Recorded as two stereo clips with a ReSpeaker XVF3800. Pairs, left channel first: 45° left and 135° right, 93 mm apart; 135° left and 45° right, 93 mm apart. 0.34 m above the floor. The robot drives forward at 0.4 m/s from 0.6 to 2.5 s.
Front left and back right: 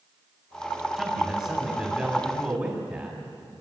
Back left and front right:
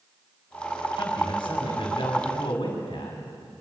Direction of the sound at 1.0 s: 145° left.